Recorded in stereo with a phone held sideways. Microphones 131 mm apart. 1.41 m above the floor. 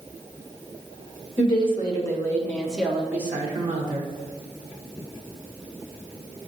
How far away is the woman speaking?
About 1.9 m.